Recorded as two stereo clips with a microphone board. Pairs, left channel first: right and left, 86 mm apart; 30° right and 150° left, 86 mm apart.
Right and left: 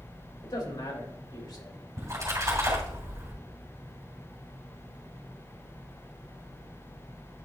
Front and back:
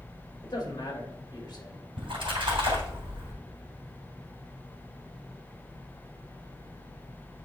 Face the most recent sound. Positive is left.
turn(degrees=140)